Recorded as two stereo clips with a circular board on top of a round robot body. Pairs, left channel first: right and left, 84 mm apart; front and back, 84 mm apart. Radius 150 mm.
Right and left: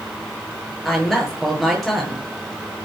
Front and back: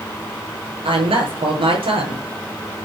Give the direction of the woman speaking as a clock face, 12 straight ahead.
6 o'clock.